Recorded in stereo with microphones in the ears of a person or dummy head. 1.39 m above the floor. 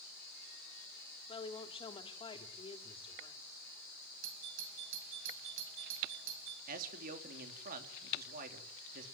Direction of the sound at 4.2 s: 70° right (ahead or behind).